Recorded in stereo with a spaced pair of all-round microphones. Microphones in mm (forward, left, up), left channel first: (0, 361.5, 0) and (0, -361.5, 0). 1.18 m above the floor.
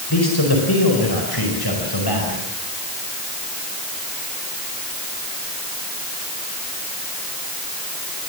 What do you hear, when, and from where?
0.1 s a man speaking: 30° left (ahead or behind), 4.5 m